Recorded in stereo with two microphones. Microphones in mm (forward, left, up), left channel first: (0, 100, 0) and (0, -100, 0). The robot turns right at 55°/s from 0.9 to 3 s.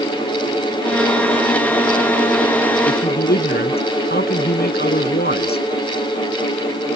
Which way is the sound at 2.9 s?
45° left (ahead or behind).